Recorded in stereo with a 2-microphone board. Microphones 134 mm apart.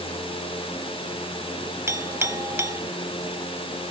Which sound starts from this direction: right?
A clink, at 1.9 s.